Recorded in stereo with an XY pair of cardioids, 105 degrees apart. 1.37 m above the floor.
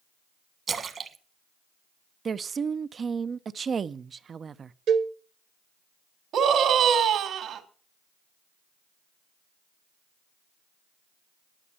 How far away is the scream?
About 2.5 m.